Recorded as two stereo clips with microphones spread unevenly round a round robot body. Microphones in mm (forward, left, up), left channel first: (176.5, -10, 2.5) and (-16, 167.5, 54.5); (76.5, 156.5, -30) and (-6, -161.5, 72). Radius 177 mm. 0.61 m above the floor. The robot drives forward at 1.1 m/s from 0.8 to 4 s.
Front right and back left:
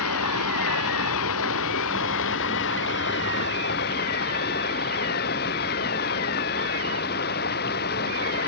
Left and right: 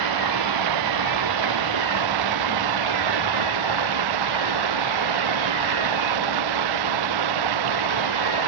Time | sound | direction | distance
0.0 | running water | 90° right | ?